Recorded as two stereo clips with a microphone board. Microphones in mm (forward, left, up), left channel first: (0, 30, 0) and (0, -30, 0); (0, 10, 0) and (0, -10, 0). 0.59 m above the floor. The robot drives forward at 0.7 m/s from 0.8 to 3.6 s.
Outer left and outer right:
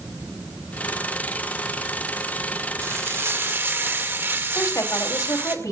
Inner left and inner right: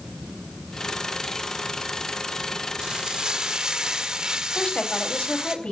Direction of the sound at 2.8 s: 45° right (ahead or behind).